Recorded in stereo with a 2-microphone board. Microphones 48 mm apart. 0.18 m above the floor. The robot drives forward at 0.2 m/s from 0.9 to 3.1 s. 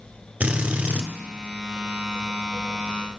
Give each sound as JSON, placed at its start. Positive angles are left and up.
{"t": 0.4, "sound": "a drill", "side_deg": -35, "distance_m": 0.9}